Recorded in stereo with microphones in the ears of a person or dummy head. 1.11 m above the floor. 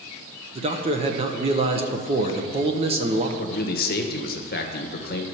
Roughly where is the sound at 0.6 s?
Right.